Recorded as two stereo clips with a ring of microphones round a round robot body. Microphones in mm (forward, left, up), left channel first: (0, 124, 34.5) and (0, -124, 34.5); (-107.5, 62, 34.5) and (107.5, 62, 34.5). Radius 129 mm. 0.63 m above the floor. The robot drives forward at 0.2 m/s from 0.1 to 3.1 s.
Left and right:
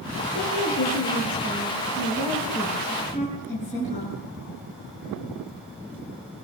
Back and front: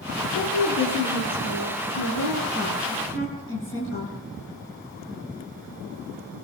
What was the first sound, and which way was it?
A woman speaking, 150° left.